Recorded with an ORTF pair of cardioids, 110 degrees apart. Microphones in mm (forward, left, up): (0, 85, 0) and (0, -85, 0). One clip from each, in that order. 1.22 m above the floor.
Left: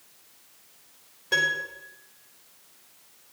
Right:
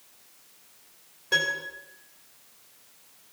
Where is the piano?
5° left, 5.5 m.